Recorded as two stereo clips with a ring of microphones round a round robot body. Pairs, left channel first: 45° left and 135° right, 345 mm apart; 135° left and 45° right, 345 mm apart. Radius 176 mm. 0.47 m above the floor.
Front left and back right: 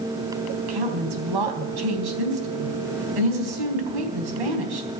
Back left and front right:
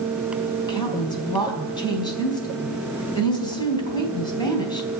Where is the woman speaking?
150° right, 3.5 m.